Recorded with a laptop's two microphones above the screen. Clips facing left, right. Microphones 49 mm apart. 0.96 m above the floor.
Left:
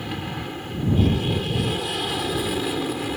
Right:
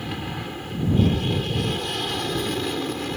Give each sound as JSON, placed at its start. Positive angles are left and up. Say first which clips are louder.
{"t": 0.0, "sound": "an aircraft", "louder": "left 1 dB", "side_deg": 0}